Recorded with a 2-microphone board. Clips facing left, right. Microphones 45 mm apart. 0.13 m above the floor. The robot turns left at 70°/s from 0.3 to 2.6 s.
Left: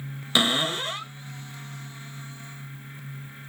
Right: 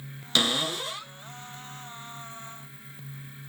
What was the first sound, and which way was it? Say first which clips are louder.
A cupboard door: left 3 dB; 155° left.